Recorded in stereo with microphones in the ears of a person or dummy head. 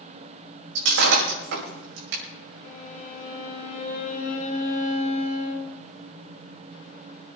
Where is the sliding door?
I don't hear a sliding door.